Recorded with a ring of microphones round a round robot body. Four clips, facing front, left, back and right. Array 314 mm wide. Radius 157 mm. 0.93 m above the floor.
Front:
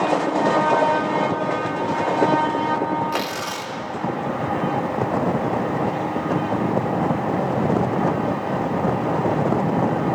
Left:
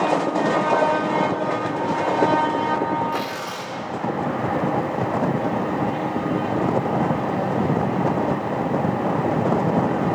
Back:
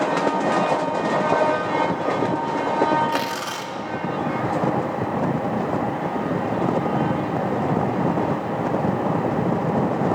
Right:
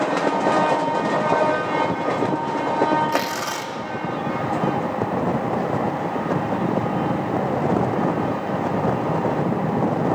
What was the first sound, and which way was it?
Tearing paper, 100° right.